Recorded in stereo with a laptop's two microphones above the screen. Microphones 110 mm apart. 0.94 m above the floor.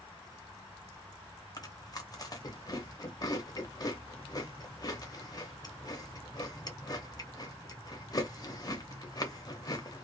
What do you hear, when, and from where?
1.6 s chewing: 35° left (ahead or behind), 0.6 m